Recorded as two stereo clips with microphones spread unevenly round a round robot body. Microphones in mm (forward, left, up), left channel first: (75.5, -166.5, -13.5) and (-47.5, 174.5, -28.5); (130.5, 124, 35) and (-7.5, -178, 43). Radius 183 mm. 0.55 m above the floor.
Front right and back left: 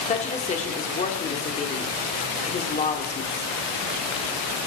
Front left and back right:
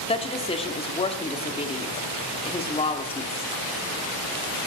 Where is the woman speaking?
Straight ahead, 1.4 m.